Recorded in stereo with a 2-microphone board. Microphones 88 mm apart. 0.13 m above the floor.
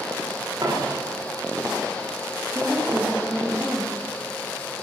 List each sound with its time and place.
0.6 s a dropped coin: 50° right (ahead or behind), 9 m
2.5 s a woman speaking: 10° right (ahead or behind), 5.5 m